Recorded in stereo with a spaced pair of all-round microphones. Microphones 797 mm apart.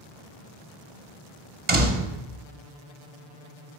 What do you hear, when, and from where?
1.7 s a door slam: 35° right (ahead or behind), 1.1 m